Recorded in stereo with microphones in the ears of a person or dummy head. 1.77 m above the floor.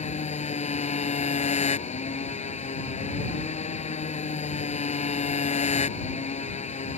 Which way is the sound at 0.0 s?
35° left (ahead or behind).